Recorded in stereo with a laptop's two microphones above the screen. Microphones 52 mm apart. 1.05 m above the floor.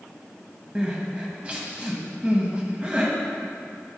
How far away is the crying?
About 0.9 m.